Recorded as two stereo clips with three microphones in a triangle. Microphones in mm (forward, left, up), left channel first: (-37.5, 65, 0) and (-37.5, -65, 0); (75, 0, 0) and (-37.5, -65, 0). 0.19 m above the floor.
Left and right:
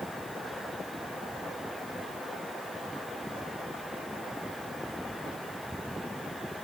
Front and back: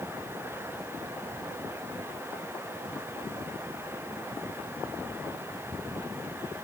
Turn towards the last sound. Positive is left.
No sound to turn to.